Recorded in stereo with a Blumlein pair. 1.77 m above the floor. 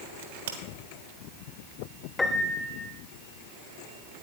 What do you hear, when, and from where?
0.2 s a crack: 60° right, 1.4 m
2.2 s a piano: 15° left, 0.8 m